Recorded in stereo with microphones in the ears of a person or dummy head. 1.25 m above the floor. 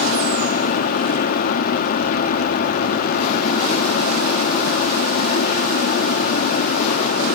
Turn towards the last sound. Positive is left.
turn(degrees=55)  # may be behind; listen again after turning